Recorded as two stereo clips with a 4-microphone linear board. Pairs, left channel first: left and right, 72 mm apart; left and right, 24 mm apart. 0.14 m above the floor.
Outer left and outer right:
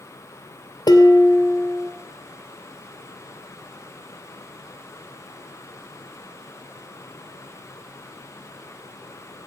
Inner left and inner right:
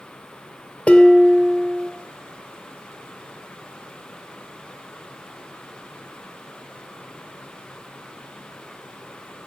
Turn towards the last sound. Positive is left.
turn(degrees=65)  # may be behind; listen again after turning